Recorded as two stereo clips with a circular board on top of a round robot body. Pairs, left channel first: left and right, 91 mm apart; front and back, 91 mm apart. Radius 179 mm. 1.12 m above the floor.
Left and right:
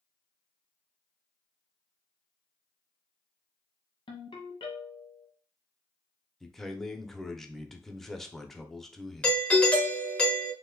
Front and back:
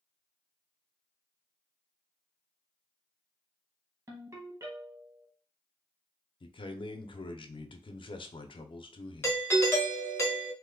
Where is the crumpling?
I don't hear crumpling.